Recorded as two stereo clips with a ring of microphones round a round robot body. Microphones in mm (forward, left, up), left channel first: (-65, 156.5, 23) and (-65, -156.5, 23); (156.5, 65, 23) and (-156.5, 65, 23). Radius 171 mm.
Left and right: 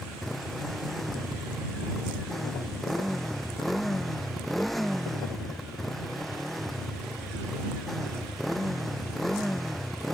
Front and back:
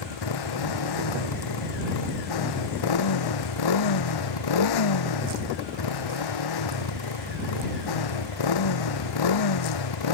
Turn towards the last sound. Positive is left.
turn(degrees=0)